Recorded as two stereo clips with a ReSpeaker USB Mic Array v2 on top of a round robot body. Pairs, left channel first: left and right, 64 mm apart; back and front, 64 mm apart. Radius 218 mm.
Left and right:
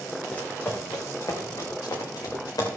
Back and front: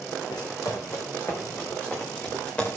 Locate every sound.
0.3 s running footsteps: 160° left, 1.6 m; by 2.7 s 110° left, 4 m